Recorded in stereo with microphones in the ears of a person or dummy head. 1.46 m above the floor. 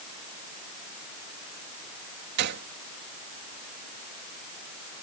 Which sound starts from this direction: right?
A gunshot, at 2.4 s.